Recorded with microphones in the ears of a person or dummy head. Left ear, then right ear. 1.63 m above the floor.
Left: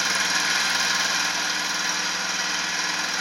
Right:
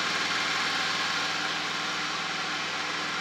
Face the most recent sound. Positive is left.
turn(degrees=55)  # may be behind; listen again after turning